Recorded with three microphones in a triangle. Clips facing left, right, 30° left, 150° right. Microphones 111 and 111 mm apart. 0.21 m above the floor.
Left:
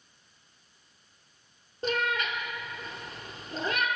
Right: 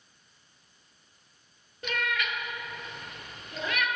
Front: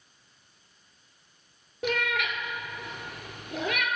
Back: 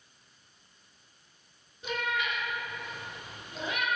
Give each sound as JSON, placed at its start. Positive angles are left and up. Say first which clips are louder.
{"t": 1.8, "sound": "a cat meowing", "louder": "left 3 dB, front 3 dB", "azimuth_deg": 35, "distance_m": 0.8}